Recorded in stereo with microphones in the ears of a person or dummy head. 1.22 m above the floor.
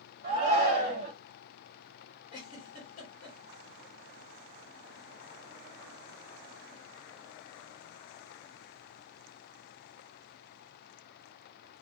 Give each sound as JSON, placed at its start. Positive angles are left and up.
{"t": 0.2, "sound": "a shout", "side_deg": -40, "distance_m": 0.8}
{"t": 2.3, "sound": "a giggle", "side_deg": 40, "distance_m": 1.5}